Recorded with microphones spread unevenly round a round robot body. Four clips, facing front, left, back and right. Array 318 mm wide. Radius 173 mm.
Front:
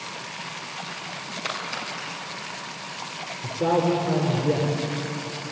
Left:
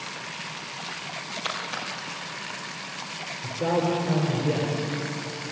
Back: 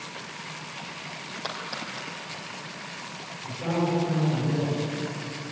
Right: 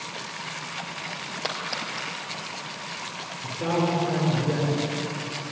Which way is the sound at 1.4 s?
75° right.